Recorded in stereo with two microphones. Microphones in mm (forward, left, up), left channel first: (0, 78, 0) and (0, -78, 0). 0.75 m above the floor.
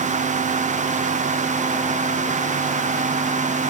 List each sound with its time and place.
Only background noise.